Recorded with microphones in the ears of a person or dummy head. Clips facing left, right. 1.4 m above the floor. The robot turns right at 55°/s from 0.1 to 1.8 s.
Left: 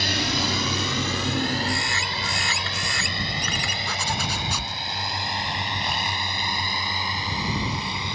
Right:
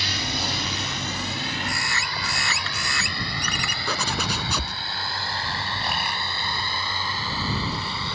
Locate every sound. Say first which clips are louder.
0.0 s a drone: left 4 dB; 50° left (ahead or behind); by 8.2 s 15° left (ahead or behind)
1.7 s a bird: left 3 dB; 60° right (ahead or behind); by 3.8 s 65° right (ahead or behind)
3.9 s a zipper: right 3 dB; 75° right (ahead or behind)